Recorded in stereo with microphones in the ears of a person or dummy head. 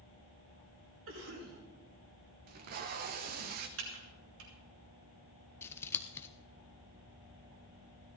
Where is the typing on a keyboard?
85° right, 2.5 m.